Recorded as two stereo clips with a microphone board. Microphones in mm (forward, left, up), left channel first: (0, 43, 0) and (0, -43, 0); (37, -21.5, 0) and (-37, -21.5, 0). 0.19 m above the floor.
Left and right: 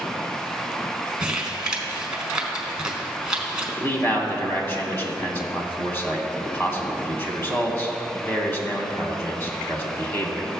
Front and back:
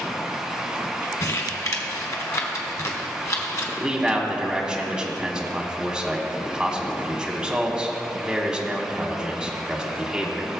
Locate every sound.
1.2 s crumpling: 15° right, 1.3 m
3.8 s a man speaking: 110° left, 1.3 m